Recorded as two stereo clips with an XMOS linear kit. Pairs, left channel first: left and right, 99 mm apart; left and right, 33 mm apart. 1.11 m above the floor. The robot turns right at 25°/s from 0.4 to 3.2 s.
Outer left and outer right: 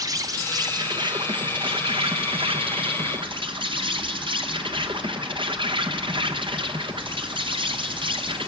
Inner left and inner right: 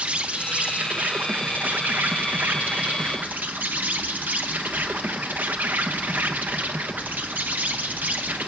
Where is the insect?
140° right, 1.1 m; by 8.5 s 70° right, 1.1 m.